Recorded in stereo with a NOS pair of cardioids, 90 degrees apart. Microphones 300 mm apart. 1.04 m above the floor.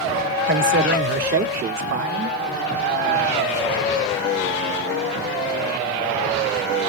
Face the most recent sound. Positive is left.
turn(degrees=-55)